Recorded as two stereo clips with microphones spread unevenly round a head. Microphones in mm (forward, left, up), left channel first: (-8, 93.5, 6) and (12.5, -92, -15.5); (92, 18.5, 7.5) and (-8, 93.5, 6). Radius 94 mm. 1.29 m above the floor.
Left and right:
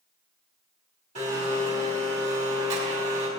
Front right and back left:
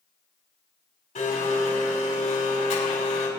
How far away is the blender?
About 5 m.